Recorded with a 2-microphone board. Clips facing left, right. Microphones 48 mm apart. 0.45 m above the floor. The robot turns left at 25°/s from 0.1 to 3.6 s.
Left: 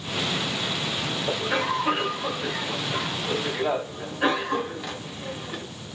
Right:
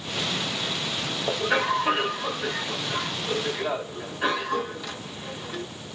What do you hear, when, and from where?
1.3 s a cough: 145° right, 2 m; by 5.6 s 155° left, 2 m